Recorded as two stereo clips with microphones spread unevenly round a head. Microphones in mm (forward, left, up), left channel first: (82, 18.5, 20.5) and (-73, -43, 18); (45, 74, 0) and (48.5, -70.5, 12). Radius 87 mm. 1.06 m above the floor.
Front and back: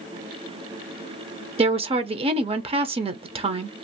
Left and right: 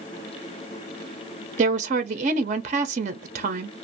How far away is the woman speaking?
About 0.5 m.